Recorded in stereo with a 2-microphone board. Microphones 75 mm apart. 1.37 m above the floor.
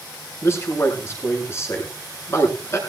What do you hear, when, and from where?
0.4 s a man speaking: 35° left (ahead or behind), 7 m